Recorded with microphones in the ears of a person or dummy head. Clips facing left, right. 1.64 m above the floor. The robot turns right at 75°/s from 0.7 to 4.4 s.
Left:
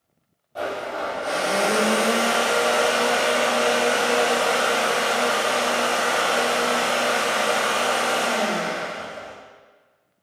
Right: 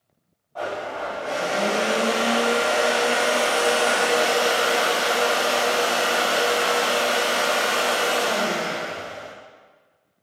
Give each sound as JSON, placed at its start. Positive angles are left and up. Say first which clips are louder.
{"t": 0.6, "sound": "a blender", "louder": "left 1 dB", "azimuth_deg": 35, "distance_m": 0.8}